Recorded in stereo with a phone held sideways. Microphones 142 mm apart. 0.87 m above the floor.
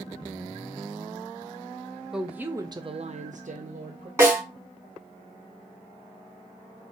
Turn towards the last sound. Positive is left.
turn(degrees=-25)  # may be behind; listen again after turning